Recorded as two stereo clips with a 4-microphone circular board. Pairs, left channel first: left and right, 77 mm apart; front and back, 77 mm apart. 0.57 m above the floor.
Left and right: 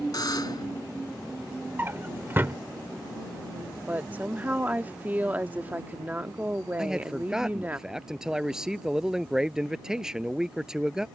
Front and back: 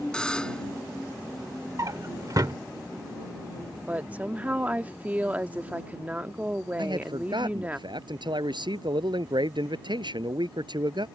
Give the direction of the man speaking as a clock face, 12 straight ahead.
6 o'clock.